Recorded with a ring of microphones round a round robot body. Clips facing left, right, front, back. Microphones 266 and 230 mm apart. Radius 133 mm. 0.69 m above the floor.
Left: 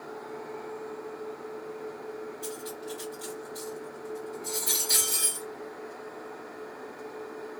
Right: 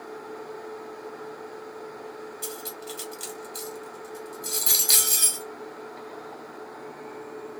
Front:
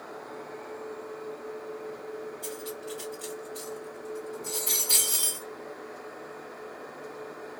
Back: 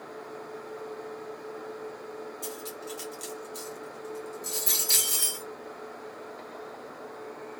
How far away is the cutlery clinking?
About 1.3 m.